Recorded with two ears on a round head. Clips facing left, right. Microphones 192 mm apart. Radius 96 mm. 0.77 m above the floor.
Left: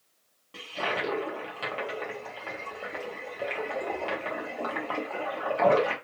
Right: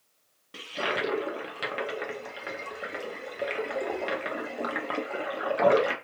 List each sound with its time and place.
0.5 s a toilet flushing: 20° right (ahead or behind), 0.7 m